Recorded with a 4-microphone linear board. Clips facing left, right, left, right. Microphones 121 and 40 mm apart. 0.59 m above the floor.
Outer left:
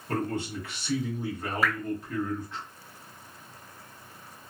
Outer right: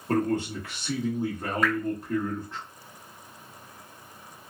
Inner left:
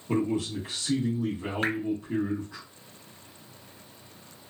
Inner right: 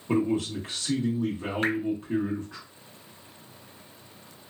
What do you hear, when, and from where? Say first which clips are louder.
0.1 s a man speaking: outer right 5 dB, inner right 2 dB; 35° right (ahead or behind), 0.9 m
1.6 s dripping: outer right 2 dB, inner right 2 dB; 5° left (ahead or behind), 0.6 m